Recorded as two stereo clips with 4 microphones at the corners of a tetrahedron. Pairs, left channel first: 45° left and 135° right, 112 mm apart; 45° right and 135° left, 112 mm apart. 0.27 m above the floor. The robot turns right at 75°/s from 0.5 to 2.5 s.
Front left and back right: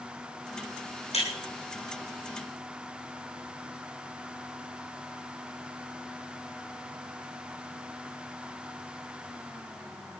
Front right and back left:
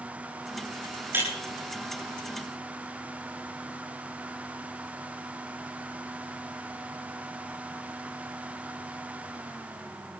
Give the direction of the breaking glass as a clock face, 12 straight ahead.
10 o'clock.